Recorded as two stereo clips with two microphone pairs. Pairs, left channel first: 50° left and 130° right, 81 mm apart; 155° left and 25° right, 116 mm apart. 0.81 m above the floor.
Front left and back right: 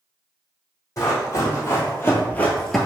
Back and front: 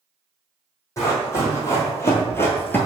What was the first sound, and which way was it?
Running footsteps, 90° left.